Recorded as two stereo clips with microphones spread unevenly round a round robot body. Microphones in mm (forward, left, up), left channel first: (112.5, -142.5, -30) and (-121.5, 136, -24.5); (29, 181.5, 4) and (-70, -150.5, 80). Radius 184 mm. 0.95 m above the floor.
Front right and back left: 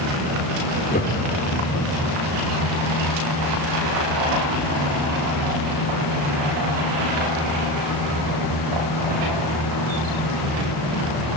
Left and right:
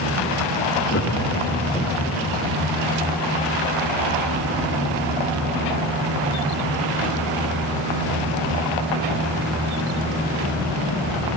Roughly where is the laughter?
Ahead.